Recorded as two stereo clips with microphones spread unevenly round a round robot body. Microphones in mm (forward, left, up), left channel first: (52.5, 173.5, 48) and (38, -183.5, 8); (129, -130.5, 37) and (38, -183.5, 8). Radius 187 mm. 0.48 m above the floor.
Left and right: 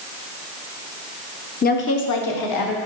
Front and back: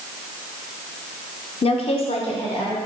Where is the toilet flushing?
I don't hear a toilet flushing.